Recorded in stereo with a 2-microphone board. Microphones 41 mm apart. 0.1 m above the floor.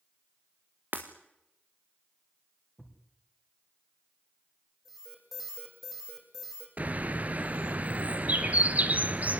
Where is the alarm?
5° right (ahead or behind), 6.5 m.